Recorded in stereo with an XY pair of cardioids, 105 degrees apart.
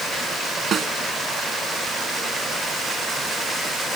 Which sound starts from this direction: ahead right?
A snare drum, at 0.7 s.